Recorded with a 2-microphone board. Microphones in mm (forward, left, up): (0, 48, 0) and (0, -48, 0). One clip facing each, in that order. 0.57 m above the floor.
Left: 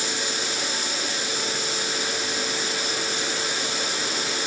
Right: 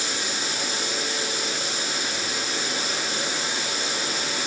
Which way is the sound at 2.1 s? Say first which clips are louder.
Left 1 dB; 40° right (ahead or behind).